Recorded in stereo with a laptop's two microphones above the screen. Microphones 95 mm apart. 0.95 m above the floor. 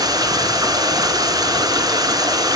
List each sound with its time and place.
0.0 s running water: 40° right (ahead or behind), 5.5 m